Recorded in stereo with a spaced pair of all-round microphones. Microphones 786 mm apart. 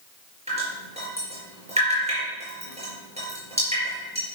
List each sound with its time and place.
0.5 s dripping: 10° right (ahead or behind), 4.5 m